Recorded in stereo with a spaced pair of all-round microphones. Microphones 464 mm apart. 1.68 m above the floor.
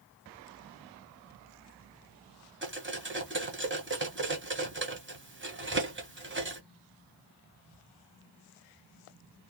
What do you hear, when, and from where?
2.6 s cutlery clinking: 25° right (ahead or behind), 0.9 m